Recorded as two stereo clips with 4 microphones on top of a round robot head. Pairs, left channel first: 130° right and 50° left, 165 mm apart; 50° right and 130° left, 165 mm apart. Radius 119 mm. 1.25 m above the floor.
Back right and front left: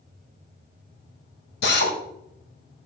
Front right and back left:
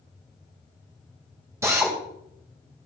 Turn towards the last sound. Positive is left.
turn(degrees=-155)